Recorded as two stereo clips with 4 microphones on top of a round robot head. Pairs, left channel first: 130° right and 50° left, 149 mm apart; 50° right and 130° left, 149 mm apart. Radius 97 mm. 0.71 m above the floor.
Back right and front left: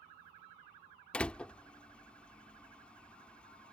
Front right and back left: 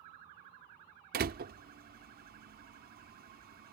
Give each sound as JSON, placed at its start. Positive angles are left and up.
{"t": 1.1, "sound": "a door slam", "azimuth_deg": 145}